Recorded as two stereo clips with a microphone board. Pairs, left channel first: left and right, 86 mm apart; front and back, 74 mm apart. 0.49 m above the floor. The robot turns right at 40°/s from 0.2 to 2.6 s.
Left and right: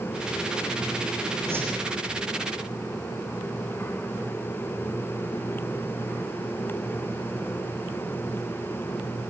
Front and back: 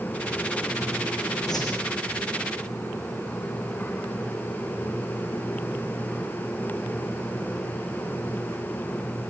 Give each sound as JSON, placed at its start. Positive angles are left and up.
{"t": 1.5, "sound": "a whoosh", "azimuth_deg": -30, "distance_m": 9.0}